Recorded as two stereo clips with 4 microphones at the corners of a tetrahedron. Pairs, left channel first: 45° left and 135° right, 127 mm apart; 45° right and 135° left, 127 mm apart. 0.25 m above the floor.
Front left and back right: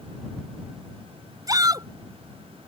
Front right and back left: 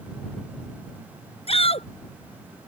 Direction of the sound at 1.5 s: 75° right.